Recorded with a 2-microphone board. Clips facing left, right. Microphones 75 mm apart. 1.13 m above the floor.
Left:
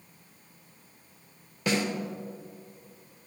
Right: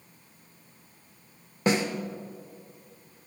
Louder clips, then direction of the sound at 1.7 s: Right 3 dB; 35° right (ahead or behind).